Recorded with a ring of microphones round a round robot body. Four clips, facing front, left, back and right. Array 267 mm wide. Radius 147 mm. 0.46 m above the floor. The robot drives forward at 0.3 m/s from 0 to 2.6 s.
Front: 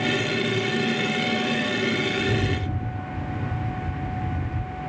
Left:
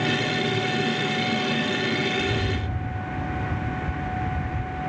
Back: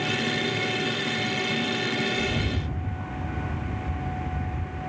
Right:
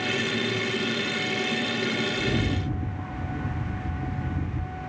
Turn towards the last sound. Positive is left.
turn(degrees=-50)